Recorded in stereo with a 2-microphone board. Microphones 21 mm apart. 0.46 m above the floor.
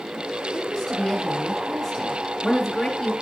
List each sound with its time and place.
0.5 s a woman speaking: 5° left (ahead or behind), 6.5 m